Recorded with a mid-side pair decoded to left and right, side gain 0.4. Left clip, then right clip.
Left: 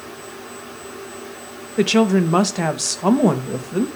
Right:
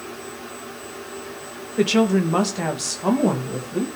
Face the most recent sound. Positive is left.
turn(degrees=50)